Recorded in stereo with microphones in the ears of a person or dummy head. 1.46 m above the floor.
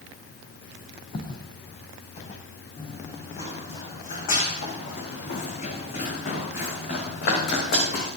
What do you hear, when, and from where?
1.1 s footsteps: 35° left (ahead or behind), 4 m; by 2.4 s 45° left (ahead or behind), 5.5 m
2.8 s running footsteps: 30° left (ahead or behind), 3.5 m; by 8.1 s 60° left (ahead or behind), 7.5 m